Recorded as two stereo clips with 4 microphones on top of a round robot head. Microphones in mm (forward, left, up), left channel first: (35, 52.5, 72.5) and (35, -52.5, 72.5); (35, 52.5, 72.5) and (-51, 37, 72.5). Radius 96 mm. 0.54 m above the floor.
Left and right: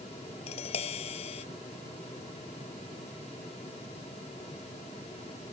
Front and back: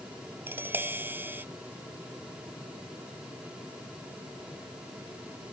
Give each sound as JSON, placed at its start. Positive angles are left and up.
{"t": 0.5, "sound": "tapping", "azimuth_deg": 120}